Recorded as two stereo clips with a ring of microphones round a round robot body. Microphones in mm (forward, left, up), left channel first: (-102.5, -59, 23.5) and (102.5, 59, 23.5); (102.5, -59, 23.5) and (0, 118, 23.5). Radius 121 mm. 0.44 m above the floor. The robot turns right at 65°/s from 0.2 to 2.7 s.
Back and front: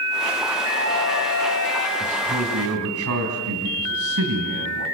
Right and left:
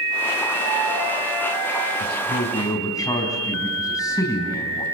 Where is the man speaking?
35° right, 4 m; by 4.8 s 10° left, 4 m.